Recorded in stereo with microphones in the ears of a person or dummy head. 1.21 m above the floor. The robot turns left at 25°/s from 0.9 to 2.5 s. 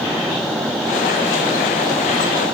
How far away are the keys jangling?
No keys jangling in this recording.